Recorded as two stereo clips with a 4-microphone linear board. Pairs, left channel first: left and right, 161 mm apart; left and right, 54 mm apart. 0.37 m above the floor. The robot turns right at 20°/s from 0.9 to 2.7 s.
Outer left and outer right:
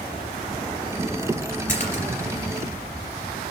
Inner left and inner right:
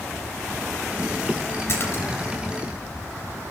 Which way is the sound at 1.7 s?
50° left (ahead or behind).